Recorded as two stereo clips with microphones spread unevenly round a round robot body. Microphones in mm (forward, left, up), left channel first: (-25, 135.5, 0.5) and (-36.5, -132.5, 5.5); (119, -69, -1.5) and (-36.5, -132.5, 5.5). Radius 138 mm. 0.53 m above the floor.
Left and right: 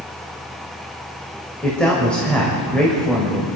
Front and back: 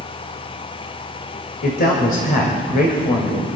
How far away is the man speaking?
About 2.5 m.